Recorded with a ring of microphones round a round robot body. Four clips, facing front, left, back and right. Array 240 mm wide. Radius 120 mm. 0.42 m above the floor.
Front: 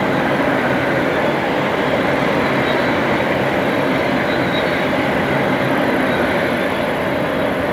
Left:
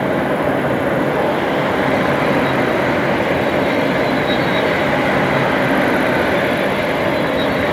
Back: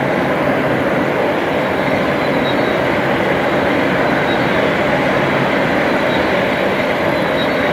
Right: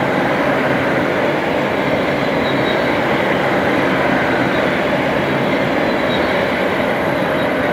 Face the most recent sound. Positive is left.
No sound to turn to.